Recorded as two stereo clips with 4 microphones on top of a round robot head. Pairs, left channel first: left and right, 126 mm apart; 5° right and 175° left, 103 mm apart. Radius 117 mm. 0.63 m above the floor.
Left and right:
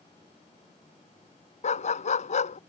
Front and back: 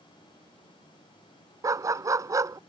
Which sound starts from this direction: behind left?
A dog barking, at 1.6 s.